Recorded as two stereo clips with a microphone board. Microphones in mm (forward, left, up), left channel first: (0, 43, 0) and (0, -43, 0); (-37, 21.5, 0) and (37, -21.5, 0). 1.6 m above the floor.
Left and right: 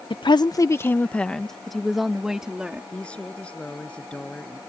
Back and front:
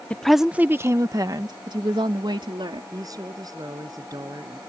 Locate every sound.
0.1 s a woman speaking: 75° left; by 2.8 s 10° right
2.9 s a woman speaking: 15° left